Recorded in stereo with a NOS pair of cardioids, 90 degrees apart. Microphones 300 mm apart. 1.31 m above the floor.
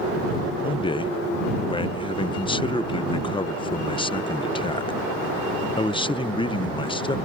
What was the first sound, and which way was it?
A man speaking, 15° left.